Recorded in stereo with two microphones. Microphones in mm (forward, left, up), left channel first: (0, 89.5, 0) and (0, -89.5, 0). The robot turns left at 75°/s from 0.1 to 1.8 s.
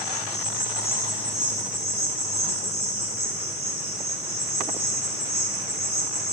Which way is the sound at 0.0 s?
95° left.